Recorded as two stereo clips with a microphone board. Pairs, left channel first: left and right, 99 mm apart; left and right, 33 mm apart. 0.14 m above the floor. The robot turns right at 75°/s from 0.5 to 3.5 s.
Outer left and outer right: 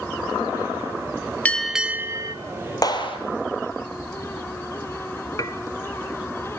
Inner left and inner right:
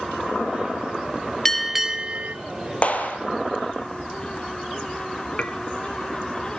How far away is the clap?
About 3 m.